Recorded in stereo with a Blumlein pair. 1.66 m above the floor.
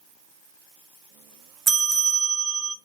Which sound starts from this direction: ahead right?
A bell, at 1.7 s.